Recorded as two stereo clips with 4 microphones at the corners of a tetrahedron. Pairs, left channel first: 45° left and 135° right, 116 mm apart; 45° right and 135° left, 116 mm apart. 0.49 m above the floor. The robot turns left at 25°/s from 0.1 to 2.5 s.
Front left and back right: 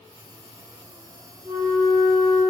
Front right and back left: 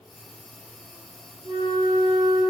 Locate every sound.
1.4 s a flute: 170° left, 2.5 m; by 2.4 s 150° left, 2.5 m